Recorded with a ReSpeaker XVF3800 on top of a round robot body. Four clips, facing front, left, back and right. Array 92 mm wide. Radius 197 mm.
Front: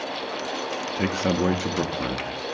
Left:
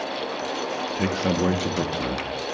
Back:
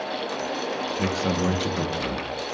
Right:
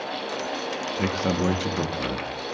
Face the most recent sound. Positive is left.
turn(degrees=15)